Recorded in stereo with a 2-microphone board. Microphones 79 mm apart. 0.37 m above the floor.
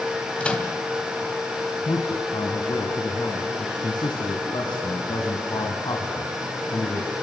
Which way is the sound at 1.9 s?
65° left (ahead or behind).